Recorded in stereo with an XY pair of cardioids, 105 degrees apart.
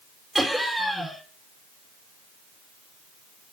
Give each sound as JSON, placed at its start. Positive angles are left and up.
{"t": 0.3, "sound": "laughter", "azimuth_deg": -5, "distance_m": 3.5}